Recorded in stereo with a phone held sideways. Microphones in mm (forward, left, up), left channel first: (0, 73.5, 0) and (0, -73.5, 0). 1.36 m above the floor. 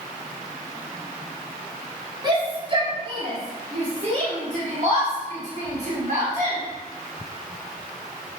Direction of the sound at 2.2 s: 30° right (ahead or behind).